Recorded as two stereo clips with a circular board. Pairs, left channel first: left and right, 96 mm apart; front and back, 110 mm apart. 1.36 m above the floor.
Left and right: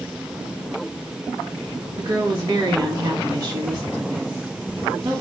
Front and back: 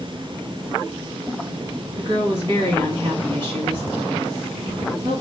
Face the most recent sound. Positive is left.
turn(degrees=-140)